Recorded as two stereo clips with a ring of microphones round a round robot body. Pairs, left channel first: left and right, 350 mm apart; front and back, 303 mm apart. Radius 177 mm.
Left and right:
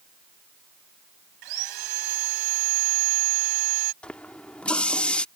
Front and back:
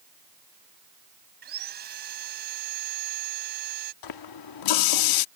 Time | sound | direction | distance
1.4 | sawing | 115° right | ?
4.0 | a running tap | 5° left | ?